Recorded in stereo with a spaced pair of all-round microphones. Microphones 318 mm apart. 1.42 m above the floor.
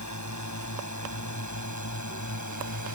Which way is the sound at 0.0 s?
60° left (ahead or behind).